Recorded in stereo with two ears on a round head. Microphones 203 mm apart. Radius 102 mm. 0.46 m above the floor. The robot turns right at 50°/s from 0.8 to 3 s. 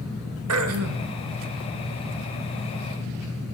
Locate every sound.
0.5 s throat clearing: 70° right (ahead or behind), 1.1 m; by 1.1 s 55° right (ahead or behind), 1.1 m